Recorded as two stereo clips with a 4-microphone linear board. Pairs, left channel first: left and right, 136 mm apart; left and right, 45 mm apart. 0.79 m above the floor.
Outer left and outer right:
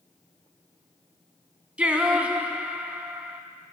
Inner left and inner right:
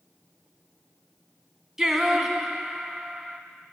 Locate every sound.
1.8 s singing: 10° right (ahead or behind), 0.9 m